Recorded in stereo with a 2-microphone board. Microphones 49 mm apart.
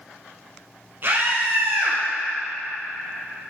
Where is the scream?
50° right (ahead or behind), 3.5 m.